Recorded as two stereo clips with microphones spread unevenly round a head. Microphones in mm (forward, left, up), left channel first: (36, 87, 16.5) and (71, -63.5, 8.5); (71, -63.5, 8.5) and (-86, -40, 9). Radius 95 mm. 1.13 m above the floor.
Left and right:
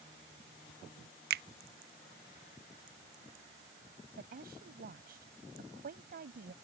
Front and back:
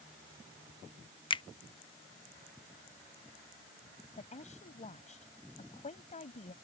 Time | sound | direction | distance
1.3 | a finger snap | 70° right | ?
4.2 | a woman speaking | 55° right | ?